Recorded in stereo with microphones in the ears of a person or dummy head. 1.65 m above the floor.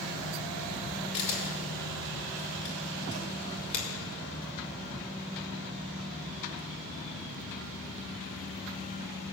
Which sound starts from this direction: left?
A camera shutter, at 1.1 s.